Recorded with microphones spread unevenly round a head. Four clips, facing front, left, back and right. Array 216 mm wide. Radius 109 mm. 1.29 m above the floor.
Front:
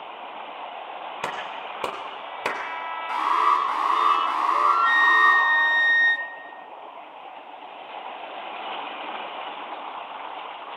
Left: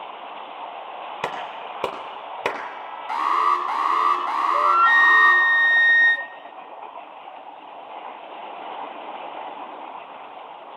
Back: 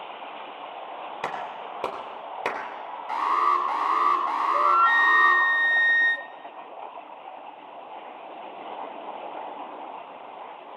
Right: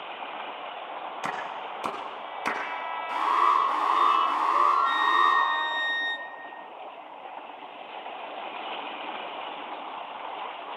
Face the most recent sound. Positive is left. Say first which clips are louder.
# left 7 dB, back 1 dB
turn(degrees=80)